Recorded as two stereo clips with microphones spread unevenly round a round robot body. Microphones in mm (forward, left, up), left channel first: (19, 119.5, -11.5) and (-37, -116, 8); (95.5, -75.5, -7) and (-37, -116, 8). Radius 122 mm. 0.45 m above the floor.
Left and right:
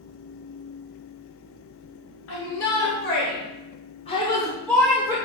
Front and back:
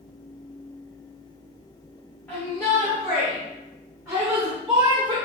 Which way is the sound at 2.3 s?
100° left.